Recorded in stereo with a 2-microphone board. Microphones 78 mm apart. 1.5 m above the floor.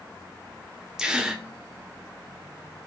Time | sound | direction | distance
1.0 | a gasp | 10° right (ahead or behind) | 1.1 m